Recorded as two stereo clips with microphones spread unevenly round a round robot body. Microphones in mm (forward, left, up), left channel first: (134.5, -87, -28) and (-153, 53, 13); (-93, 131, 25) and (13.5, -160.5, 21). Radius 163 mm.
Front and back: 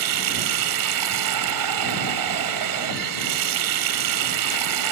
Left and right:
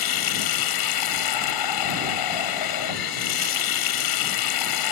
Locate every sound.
0.0 s running water: 120° left